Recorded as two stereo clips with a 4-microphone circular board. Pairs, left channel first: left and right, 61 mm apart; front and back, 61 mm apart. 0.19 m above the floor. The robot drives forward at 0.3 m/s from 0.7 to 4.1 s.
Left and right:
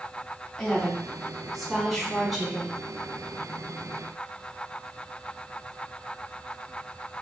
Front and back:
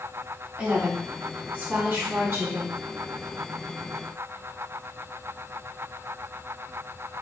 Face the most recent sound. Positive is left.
turn(degrees=180)